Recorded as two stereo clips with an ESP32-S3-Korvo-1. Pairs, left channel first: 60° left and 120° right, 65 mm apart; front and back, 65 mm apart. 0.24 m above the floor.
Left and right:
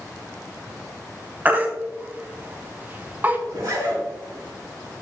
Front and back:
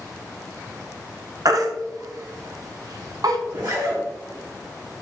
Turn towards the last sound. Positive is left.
turn(degrees=-160)